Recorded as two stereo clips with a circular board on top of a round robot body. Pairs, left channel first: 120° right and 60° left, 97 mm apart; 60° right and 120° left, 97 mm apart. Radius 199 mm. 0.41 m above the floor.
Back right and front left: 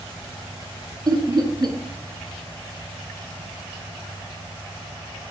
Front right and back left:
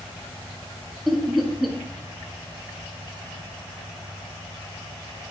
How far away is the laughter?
About 1.4 m.